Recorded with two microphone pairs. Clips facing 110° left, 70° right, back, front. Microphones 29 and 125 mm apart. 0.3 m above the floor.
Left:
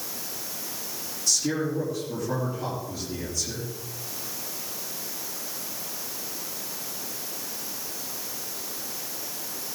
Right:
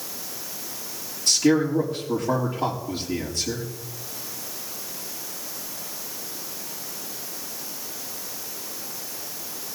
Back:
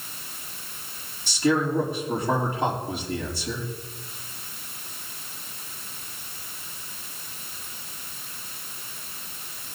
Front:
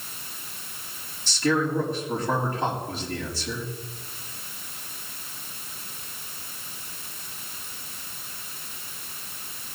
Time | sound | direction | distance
1.3 | a man speaking | 95° right | 4.5 m